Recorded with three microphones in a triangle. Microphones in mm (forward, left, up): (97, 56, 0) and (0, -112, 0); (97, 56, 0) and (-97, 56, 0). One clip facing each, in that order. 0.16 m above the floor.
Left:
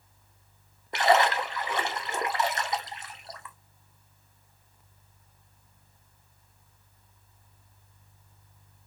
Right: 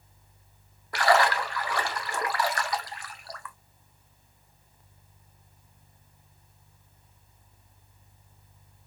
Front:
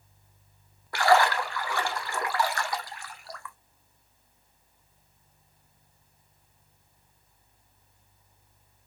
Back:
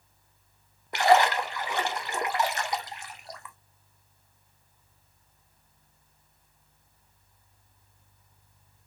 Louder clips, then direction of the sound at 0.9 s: Even, back 1 dB; 120° left.